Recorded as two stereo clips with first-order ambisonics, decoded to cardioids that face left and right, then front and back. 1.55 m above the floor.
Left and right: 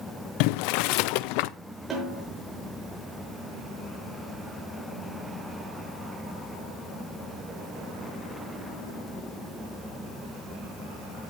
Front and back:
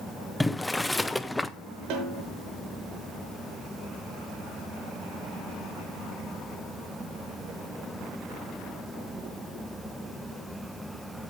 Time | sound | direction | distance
0.4 | boiling | 85° left | 0.6 m
1.9 | a snare drum | 160° right | 6 m